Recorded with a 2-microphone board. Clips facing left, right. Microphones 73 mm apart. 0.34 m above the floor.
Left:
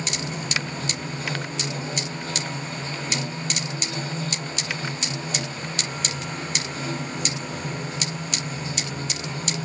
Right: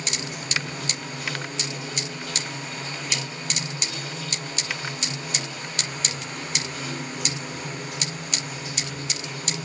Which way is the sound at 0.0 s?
35° left (ahead or behind).